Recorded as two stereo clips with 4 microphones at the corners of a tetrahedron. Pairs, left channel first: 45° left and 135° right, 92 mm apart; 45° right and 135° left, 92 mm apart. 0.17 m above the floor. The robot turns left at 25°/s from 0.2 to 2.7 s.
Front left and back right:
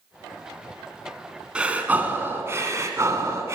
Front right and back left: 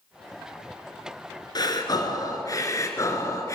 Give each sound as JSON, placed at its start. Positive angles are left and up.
{"t": 1.6, "sound": "breathing", "azimuth_deg": -60, "distance_m": 1.3}